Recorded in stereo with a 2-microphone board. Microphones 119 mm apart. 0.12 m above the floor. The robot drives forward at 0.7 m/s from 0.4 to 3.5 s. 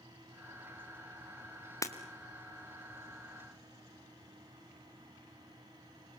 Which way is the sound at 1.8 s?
25° left (ahead or behind).